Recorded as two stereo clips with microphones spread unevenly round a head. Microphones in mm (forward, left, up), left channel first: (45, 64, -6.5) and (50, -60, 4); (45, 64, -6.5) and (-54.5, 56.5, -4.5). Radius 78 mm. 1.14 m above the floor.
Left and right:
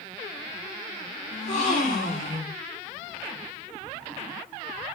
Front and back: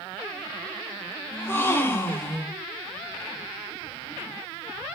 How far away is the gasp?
About 1.4 m.